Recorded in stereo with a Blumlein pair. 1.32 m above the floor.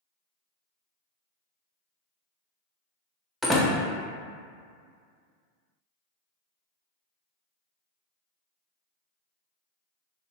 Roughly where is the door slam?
Ahead.